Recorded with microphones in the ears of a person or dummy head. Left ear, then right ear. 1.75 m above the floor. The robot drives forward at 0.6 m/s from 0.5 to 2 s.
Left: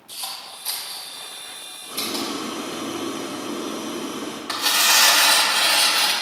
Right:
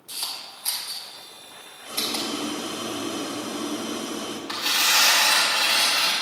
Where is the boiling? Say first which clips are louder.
Even; 65° right (ahead or behind), 3 m.